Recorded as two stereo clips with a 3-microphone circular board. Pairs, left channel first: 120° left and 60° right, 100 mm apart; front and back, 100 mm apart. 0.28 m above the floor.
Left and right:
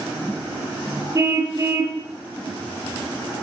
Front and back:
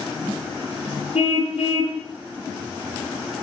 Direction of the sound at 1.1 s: Straight ahead.